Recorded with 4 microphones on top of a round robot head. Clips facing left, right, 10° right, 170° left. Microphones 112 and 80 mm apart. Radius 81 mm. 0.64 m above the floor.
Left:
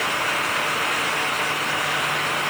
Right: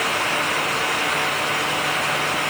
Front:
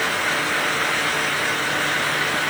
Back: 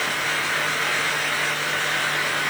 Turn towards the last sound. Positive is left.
No sound to turn to.